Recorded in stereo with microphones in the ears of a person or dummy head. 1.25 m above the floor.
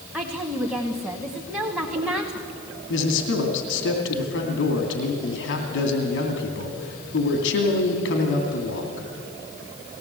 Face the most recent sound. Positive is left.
turn(degrees=75)  # may be behind; listen again after turning